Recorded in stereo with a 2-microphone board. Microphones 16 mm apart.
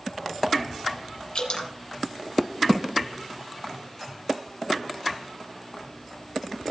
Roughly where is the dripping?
Left.